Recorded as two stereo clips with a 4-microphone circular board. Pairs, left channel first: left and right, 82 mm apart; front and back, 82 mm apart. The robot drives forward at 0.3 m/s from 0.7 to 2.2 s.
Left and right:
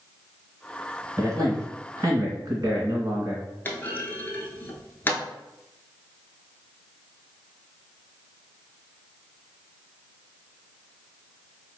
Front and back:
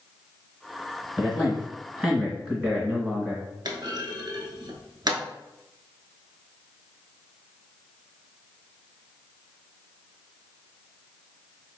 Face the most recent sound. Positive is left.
turn(degrees=150)